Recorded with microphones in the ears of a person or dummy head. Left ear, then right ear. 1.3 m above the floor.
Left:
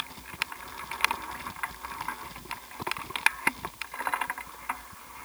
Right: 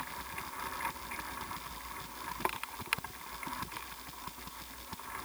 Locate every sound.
Only background noise.